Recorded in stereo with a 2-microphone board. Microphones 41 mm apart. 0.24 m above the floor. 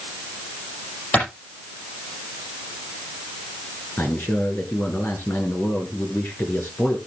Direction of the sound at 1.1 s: 35° left (ahead or behind).